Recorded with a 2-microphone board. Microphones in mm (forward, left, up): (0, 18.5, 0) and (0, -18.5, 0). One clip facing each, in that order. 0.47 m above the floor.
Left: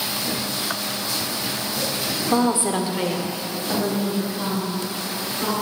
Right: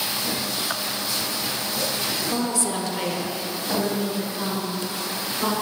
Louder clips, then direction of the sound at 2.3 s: Left 8 dB; 35° left (ahead or behind).